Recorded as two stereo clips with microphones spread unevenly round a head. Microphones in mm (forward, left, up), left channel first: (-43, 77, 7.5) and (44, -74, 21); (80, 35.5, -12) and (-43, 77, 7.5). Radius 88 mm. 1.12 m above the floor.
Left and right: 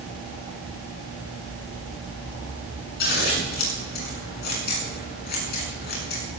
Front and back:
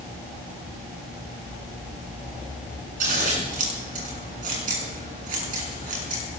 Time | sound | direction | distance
3.0 | scissors | 155° left | 7.5 m